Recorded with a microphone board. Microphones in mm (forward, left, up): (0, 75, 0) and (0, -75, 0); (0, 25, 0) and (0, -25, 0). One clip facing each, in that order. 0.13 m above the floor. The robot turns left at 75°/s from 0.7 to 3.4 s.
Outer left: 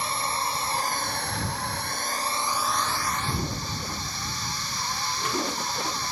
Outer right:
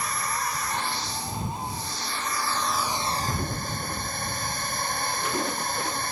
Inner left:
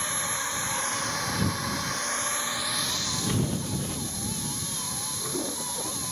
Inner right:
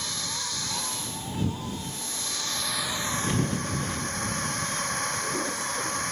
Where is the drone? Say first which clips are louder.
Outer left 1 dB, inner left 4 dB; 150° left; by 6.1 s 50° right.